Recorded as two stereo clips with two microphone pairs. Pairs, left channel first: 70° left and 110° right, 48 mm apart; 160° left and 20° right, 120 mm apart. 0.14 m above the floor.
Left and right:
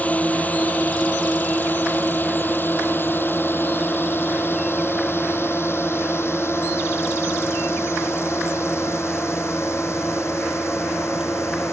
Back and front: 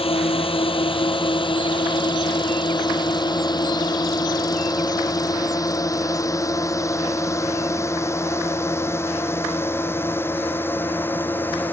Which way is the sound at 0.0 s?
130° left.